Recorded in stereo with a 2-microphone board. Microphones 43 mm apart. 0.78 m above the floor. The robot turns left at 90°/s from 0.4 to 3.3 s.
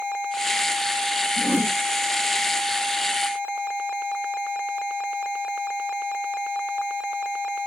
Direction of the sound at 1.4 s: 15° right.